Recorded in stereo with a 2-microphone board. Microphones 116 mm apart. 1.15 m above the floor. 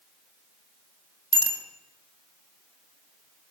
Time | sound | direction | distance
1.3 | a bicycle bell | 45° right (ahead or behind) | 3.5 m